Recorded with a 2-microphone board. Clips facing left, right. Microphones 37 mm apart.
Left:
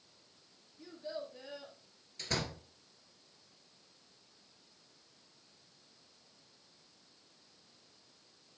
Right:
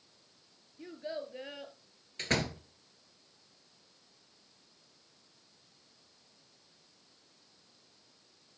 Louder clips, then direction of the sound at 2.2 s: Right 6 dB; 45° right (ahead or behind).